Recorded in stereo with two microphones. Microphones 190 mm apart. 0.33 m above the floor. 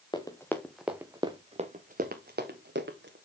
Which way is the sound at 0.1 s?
25° left (ahead or behind).